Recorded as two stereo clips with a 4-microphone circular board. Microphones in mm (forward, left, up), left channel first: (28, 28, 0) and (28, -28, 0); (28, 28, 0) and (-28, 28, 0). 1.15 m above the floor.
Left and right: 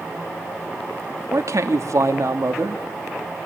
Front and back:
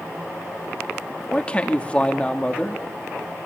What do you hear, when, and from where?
1.3 s a man speaking: 70° right, 3 m